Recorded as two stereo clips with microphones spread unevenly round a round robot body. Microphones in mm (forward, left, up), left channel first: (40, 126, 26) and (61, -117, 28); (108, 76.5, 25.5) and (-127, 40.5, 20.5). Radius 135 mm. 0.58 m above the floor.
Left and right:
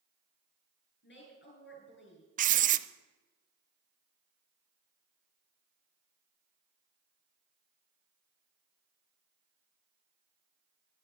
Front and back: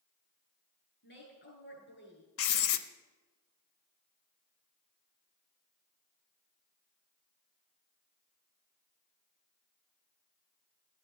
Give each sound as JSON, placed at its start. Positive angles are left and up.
{"t": 1.0, "sound": "a woman speaking", "azimuth_deg": 50, "distance_m": 8.5}
{"t": 2.4, "sound": "writing", "azimuth_deg": -30, "distance_m": 0.5}